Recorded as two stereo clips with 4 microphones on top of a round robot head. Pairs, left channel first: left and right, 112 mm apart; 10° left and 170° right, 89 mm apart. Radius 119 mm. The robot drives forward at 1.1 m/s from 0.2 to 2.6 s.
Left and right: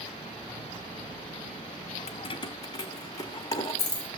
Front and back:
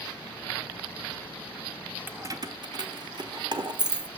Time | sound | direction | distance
2.1 | keys jangling | 120° left | 0.5 m